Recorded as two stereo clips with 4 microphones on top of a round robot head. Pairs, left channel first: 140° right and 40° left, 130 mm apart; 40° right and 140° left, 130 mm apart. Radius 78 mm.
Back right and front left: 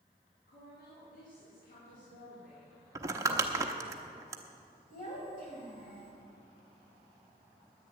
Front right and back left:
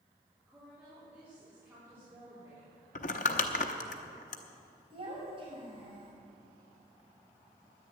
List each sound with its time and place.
0.5 s a woman speaking: 130° right, 3.5 m; by 2.9 s 150° right, 3.5 m
3.0 s crumpling: 25° right, 0.8 m
4.9 s a child speaking: 165° right, 5.5 m